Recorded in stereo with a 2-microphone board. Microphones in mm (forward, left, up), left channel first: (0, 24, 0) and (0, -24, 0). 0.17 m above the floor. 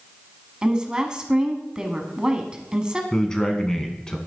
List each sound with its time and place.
0.6 s a woman speaking: 20° right (ahead or behind), 1.1 m
3.1 s a man speaking: 15° left (ahead or behind), 1.2 m